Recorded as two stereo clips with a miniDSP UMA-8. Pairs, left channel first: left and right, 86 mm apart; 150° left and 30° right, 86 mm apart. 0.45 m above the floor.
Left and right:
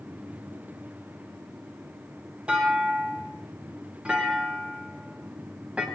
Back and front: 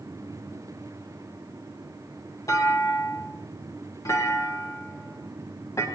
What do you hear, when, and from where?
2.5 s a clunk: 165° right, 3 m